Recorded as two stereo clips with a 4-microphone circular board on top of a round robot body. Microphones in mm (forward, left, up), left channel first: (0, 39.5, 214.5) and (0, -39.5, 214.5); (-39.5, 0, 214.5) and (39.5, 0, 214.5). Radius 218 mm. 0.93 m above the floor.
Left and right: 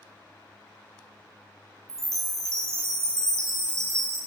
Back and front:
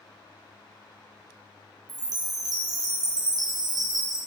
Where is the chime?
35° right, 0.7 m.